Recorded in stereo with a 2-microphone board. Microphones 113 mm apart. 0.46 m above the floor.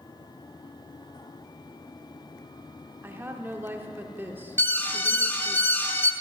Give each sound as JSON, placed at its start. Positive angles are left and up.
{"t": 3.0, "sound": "a woman speaking", "side_deg": -20, "distance_m": 0.7}
{"t": 4.6, "sound": "an alarm", "side_deg": 15, "distance_m": 0.7}